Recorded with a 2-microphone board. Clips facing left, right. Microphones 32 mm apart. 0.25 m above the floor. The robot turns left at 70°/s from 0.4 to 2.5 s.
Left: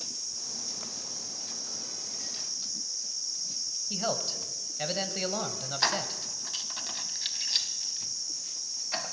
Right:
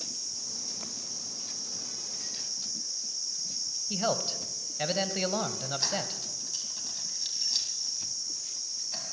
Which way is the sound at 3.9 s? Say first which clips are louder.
Right 2 dB; 10° right (ahead or behind).